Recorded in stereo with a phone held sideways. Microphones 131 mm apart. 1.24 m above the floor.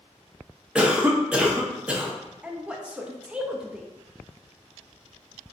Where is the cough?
10° right (ahead or behind), 0.6 m.